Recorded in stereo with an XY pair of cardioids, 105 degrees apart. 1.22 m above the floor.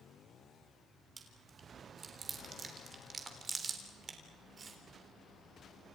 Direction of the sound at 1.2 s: 45° right.